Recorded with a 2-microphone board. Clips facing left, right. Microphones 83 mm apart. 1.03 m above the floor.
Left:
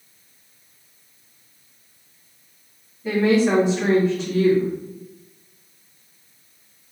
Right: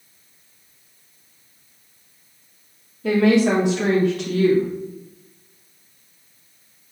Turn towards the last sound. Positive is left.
turn(degrees=-80)